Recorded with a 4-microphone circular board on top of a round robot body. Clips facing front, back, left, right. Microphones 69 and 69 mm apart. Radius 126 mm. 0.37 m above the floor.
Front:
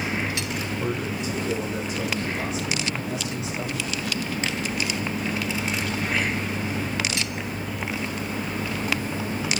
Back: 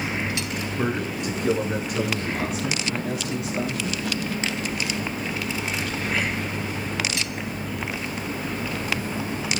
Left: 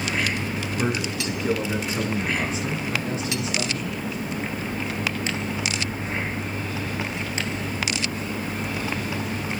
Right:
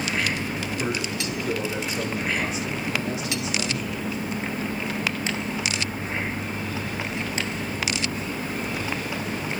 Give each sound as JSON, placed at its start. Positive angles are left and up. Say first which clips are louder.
{"t": 0.8, "sound": "a man speaking", "louder": "back 4 dB, left 4 dB", "azimuth_deg": 150, "distance_m": 6.0}